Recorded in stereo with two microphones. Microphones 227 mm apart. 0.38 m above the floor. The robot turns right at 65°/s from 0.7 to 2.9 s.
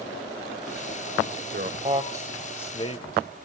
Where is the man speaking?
45° right (ahead or behind), 1.3 m; by 3.0 s 25° left (ahead or behind), 1.3 m.